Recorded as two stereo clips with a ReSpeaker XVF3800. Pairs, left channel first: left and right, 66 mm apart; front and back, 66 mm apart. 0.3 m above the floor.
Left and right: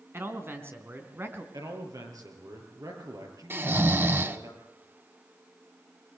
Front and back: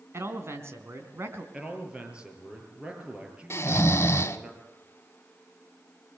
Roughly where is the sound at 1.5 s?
Right.